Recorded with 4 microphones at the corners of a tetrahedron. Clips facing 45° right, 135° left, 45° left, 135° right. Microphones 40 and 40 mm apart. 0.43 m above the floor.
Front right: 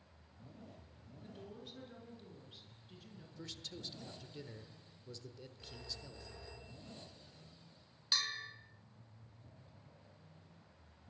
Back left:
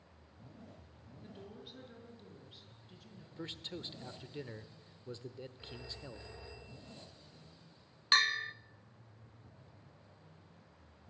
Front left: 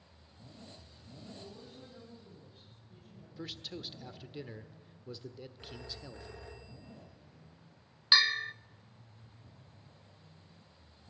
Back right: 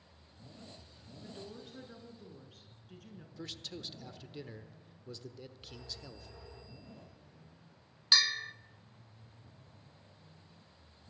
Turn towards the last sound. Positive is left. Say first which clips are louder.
# back left 9 dB, front left 3 dB
turn(degrees=110)